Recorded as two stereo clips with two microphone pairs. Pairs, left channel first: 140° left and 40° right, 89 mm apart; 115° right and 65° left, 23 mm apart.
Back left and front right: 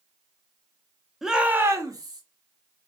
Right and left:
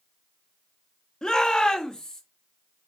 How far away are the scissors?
No scissors in this recording.